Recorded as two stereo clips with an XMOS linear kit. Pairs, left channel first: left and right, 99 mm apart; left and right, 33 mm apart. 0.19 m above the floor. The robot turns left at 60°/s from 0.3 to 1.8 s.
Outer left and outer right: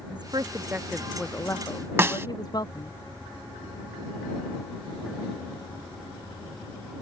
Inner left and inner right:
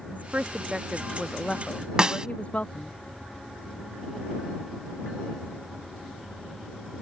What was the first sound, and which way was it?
A woman speaking, 135° right.